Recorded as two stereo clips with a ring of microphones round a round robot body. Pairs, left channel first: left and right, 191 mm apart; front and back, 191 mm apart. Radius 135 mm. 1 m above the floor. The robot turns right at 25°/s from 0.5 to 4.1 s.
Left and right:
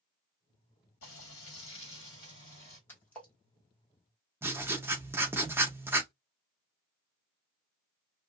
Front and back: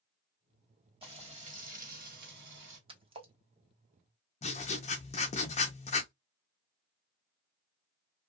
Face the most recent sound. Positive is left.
turn(degrees=-20)